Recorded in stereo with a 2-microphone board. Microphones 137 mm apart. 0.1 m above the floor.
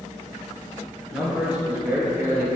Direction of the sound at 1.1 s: 5° right (ahead or behind).